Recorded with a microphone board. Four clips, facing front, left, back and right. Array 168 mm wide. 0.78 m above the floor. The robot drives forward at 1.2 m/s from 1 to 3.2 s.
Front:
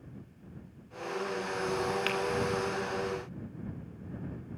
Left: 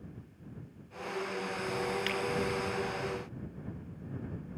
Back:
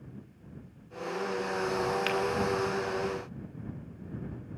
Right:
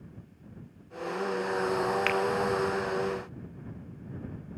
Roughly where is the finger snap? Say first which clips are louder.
Right 7 dB, back 3 dB; right.